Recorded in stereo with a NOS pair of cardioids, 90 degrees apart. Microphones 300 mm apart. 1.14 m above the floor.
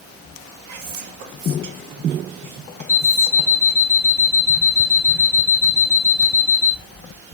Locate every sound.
0.7 s whispering: 70° right, 0.8 m
2.9 s an alarm clock: 5° left, 0.7 m